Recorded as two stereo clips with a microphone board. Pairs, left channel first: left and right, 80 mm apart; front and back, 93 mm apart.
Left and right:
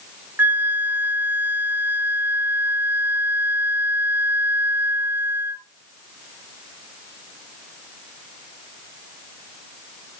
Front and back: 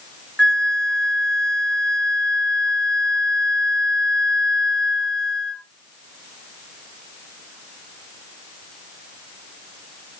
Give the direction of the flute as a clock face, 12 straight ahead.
2 o'clock.